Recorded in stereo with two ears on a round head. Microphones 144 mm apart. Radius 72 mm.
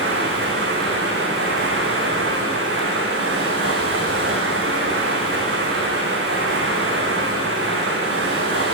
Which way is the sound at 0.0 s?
80° right.